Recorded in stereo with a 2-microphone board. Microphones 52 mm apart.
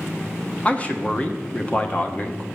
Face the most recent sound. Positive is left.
turn(degrees=25)  # may be behind; listen again after turning